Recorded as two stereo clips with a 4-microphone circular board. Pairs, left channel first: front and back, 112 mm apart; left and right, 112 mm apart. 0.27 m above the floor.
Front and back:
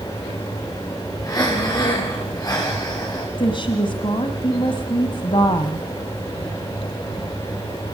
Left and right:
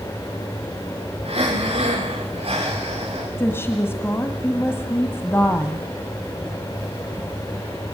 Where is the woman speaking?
25° left, 1.6 m.